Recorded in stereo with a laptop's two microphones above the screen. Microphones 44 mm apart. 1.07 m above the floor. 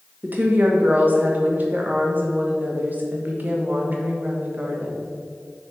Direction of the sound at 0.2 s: 40° right (ahead or behind).